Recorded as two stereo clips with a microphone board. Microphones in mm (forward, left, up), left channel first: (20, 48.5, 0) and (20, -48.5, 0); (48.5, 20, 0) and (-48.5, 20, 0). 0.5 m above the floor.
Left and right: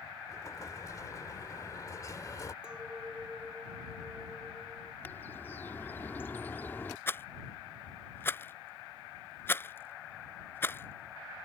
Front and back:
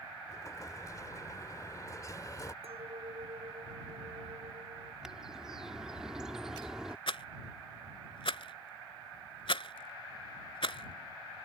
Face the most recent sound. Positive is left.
turn(degrees=25)